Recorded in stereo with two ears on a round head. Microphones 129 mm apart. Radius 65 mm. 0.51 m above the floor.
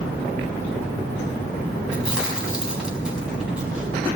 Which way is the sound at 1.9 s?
5° right (ahead or behind).